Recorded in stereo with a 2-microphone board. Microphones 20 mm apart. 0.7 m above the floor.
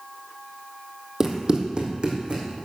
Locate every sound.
1.2 s running footsteps: 20° right (ahead or behind), 1.7 m; by 2.4 s 45° right (ahead or behind), 3 m